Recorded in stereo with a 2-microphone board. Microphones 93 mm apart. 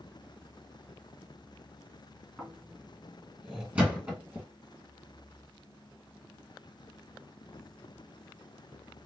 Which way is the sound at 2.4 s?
10° right (ahead or behind).